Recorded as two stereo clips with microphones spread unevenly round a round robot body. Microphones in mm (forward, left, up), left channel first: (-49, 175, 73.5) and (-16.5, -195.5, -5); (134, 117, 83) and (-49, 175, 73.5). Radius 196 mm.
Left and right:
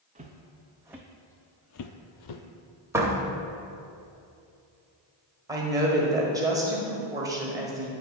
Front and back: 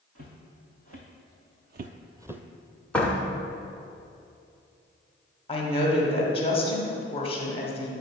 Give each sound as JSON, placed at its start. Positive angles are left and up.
{"t": 0.1, "sound": "footsteps", "azimuth_deg": -160, "distance_m": 1.4}
{"t": 2.9, "sound": "a door slam", "azimuth_deg": -95, "distance_m": 0.7}
{"t": 5.5, "sound": "a woman speaking", "azimuth_deg": -45, "distance_m": 1.3}